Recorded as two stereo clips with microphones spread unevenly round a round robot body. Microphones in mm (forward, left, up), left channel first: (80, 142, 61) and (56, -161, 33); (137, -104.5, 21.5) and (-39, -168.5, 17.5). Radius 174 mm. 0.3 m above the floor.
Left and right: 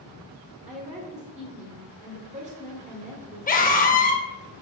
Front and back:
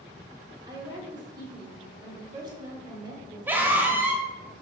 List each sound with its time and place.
0.7 s a woman speaking: 120° right, 1.3 m
3.5 s a scream: 130° left, 0.9 m